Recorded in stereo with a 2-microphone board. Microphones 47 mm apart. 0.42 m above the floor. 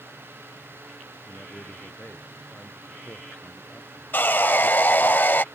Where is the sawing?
45° left (ahead or behind).